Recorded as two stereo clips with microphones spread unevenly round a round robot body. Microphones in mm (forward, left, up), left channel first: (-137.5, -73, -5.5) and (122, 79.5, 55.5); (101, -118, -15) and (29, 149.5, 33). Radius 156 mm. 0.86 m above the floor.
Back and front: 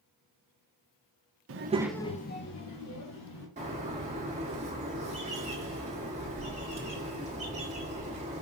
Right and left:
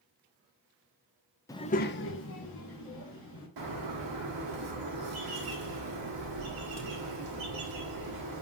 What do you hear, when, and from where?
1.5 s a child speaking: 10° right, 0.6 m; by 3.5 s 120° right, 1.8 m
3.6 s a bird: 100° left, 1.2 m